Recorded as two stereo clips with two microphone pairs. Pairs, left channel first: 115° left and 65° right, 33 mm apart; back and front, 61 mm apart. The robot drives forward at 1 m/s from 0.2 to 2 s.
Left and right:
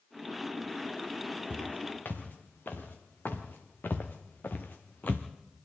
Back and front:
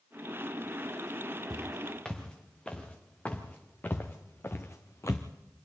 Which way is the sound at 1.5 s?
95° left.